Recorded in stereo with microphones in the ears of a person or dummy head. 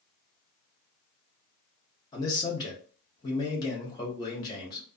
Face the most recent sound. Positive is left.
turn(degrees=30)  # may be behind; listen again after turning